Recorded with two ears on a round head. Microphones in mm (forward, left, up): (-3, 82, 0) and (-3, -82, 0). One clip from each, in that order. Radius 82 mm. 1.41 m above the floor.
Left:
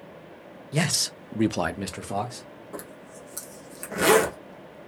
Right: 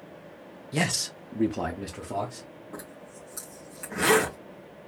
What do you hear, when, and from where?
0.7 s a man speaking: centre (ahead or behind), 0.8 m; by 2.5 s 55° left (ahead or behind), 1.2 m
2.7 s a zipper: 15° left (ahead or behind), 1.4 m